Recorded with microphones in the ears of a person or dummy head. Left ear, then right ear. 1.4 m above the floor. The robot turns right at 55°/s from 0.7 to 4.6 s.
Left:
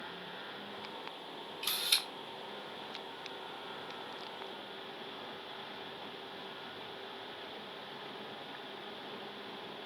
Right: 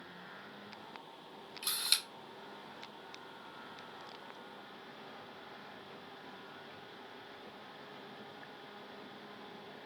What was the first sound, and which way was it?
A camera shutter, 50° right (ahead or behind).